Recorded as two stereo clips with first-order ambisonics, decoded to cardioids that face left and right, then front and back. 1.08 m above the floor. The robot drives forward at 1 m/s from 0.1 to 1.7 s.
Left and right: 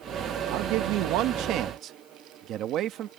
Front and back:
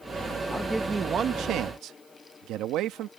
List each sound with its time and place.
0.5 s a man speaking: 75° right; by 3.1 s 140° right